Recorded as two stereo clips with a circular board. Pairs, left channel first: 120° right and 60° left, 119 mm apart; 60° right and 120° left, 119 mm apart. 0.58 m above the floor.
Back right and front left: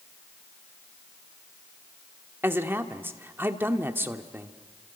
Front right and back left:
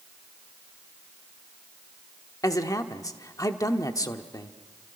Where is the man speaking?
5° right, 1.3 m.